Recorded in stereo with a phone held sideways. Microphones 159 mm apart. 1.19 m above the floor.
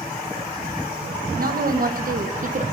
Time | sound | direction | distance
1.4 | a woman speaking | 60° right (ahead or behind) | 1.4 m